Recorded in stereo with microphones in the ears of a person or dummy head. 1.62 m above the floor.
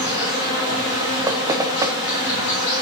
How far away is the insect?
About 5 m.